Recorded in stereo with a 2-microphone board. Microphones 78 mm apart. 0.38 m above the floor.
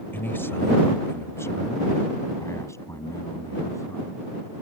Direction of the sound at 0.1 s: 30° left (ahead or behind).